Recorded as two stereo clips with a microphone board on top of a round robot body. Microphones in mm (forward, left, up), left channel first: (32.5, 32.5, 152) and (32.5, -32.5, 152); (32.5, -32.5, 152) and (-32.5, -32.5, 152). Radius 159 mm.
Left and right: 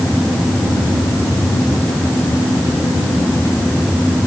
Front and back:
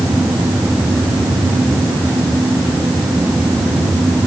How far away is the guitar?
I don't hear a guitar.